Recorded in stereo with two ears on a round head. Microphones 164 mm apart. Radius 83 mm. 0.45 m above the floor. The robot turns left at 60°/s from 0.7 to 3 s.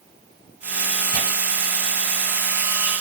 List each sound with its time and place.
1.1 s tearing paper: 40° right (ahead or behind), 1.3 m